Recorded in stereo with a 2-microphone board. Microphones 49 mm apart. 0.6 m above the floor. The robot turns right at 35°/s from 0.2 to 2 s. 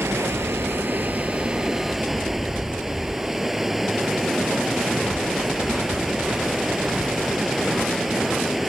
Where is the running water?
65° right; by 8.7 s 5° right.